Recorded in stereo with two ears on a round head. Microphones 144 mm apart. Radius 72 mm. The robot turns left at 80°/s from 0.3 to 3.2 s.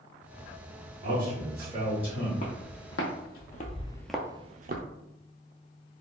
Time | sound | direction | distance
1.0 | a man speaking | 85° right | 1.8 m
2.4 | footsteps | 45° left (ahead or behind) | 1.7 m